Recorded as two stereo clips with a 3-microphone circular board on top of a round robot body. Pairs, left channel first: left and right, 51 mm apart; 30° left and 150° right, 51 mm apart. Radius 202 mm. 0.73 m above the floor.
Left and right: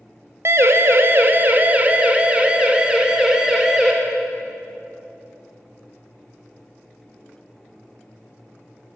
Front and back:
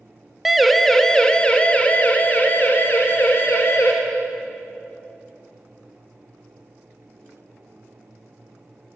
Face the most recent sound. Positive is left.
turn(degrees=-10)